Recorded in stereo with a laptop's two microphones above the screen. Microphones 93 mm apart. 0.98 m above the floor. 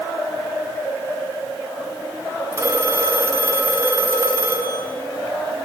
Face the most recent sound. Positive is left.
turn(degrees=-30)  # may be behind; listen again after turning